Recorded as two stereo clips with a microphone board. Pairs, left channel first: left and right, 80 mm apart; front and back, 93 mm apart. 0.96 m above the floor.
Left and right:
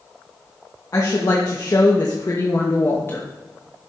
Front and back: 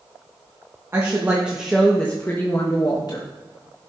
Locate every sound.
0.9 s a woman speaking: 125° left, 1.6 m; by 3.3 s 30° left, 1.8 m